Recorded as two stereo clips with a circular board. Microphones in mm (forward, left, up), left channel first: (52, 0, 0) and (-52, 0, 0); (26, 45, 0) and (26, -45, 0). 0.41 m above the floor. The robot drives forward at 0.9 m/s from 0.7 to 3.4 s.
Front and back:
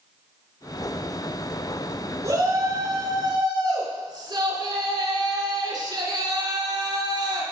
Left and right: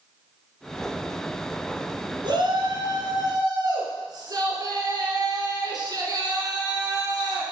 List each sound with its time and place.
2.2 s a shout: 120° right, 3.5 m; by 7.4 s 135° right, 4 m